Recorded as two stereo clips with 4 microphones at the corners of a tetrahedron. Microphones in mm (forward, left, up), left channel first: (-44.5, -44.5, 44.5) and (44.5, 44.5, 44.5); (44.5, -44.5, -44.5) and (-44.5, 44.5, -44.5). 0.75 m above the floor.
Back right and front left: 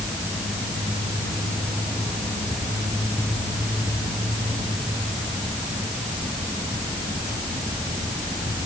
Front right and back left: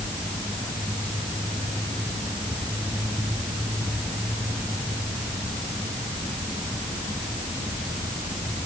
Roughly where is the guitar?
I don't hear a guitar.